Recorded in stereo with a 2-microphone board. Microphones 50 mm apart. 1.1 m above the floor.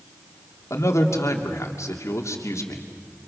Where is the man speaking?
80° left, 2.5 m.